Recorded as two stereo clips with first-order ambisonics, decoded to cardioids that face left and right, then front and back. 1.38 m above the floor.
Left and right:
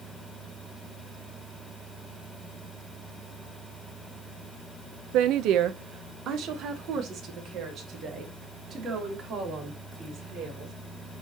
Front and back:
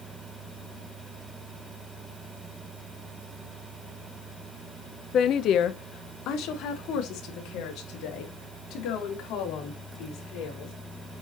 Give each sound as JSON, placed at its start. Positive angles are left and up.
{"t": 5.1, "sound": "a woman speaking", "azimuth_deg": -60, "distance_m": 0.6}